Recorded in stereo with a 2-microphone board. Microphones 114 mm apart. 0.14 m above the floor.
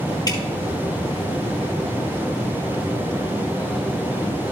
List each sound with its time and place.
0.3 s dripping: 35° left (ahead or behind), 2.5 m